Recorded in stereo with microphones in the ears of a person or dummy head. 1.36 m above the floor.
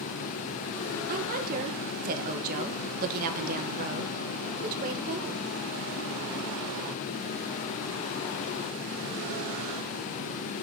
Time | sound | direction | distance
1.1 | a woman speaking | 40° right (ahead or behind) | 1.5 m